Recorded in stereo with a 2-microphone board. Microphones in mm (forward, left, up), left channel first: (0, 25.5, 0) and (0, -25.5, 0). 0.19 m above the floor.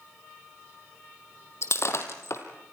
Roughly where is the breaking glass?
Left.